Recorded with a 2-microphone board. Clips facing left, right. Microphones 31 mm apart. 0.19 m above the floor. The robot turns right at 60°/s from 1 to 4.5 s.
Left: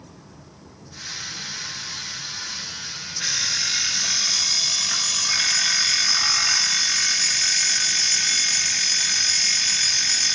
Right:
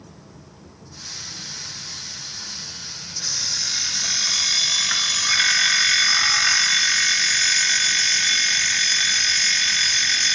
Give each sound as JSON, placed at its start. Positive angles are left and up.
{"t": 3.2, "sound": "an alarm clock", "azimuth_deg": 135, "distance_m": 1.6}